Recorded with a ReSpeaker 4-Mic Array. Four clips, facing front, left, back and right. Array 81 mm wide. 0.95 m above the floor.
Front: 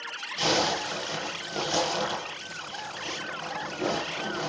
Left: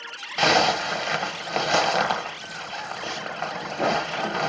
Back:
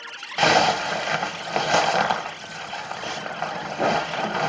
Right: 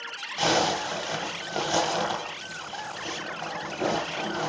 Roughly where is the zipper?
Behind left.